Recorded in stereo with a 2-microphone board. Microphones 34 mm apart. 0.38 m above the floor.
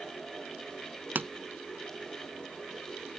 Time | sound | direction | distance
1.1 | a pop | 65° right (ahead or behind) | ?